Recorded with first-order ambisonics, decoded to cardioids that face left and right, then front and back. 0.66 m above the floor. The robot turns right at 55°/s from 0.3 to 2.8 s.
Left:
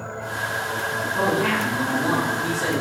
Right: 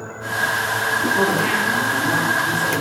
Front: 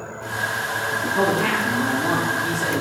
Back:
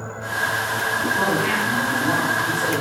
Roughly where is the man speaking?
Ahead.